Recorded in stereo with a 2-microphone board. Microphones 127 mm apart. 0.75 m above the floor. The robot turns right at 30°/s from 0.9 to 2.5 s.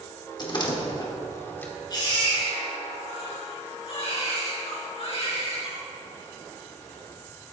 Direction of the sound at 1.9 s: 35° left (ahead or behind).